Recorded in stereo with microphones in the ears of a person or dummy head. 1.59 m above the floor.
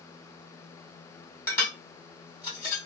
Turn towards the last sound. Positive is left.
turn(degrees=20)  # may be behind; listen again after turning